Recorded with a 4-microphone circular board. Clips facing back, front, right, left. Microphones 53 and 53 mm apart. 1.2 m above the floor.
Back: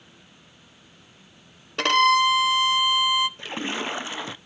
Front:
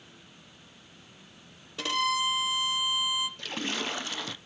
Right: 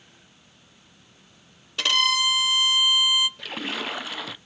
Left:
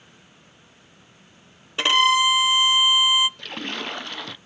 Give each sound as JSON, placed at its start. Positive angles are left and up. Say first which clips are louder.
{"t": 1.8, "sound": "a violin", "louder": "back 10 dB, left 5 dB", "azimuth_deg": 155, "distance_m": 0.5}
{"t": 3.4, "sound": "a splash", "louder": "back 4 dB, even", "azimuth_deg": -165, "distance_m": 0.6}